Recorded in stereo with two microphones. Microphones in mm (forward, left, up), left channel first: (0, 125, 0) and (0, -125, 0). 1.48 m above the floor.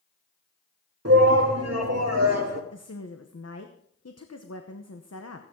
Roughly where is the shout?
Right.